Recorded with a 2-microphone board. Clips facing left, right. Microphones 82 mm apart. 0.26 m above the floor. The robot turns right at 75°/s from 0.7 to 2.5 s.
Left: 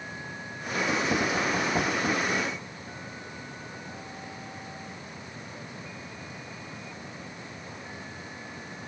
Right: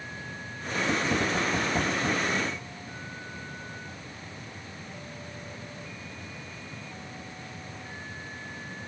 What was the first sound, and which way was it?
Only background noise.